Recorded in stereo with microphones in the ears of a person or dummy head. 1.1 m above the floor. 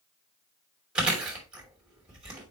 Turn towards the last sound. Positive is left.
turn(degrees=-5)  # may be behind; listen again after turning